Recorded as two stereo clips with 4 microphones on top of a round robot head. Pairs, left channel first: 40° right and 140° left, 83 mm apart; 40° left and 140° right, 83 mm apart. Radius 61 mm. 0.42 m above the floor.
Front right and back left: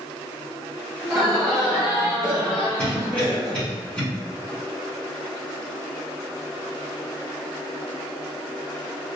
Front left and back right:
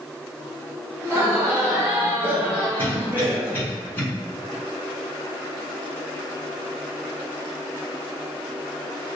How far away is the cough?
About 1.3 m.